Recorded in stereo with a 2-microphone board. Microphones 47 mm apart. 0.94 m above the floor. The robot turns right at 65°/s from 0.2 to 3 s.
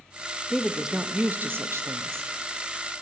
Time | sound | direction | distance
0.5 | a woman speaking | 170° left | 0.5 m